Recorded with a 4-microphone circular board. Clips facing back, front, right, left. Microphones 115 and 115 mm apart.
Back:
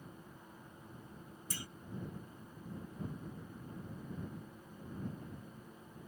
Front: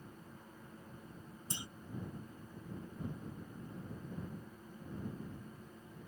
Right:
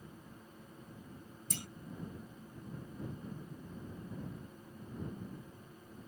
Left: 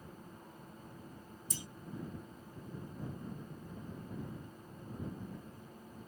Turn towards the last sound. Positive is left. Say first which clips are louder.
# front 1 dB, right 3 dB
turn(degrees=-65)